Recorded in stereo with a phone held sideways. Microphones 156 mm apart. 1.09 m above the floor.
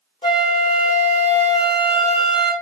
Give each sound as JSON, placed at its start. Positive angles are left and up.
{"t": 0.2, "sound": "a flute", "side_deg": 30, "distance_m": 1.6}